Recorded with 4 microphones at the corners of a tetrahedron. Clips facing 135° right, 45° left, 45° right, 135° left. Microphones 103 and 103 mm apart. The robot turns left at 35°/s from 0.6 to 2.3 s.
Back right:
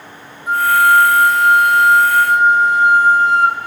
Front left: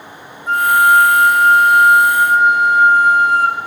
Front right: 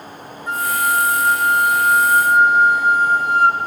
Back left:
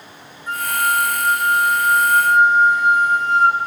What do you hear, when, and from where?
0.5 s a flute: 60° right, 1.0 m; by 3.6 s 120° right, 1.0 m